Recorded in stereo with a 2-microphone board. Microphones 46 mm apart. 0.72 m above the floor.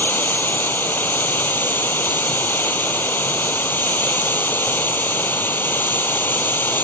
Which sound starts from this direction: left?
Running water, at 0.0 s.